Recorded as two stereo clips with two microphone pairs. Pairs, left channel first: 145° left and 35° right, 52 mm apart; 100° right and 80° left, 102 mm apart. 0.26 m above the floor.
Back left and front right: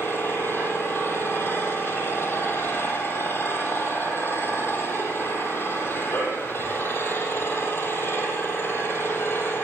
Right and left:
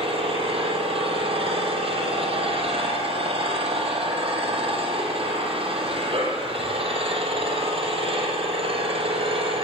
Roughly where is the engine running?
Left.